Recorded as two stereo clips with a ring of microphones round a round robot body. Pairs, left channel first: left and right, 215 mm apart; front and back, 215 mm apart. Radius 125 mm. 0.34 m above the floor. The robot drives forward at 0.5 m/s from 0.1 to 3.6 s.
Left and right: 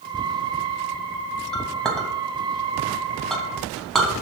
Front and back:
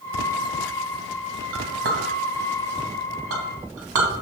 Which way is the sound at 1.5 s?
Straight behind.